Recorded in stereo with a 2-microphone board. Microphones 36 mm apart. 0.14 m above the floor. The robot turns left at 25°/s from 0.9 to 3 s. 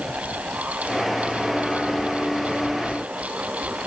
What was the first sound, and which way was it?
Only background noise.